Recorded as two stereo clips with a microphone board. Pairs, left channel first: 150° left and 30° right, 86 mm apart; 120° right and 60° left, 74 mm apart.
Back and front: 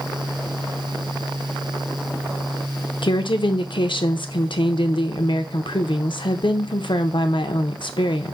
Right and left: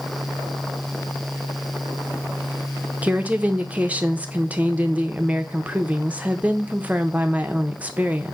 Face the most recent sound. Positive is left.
turn(degrees=130)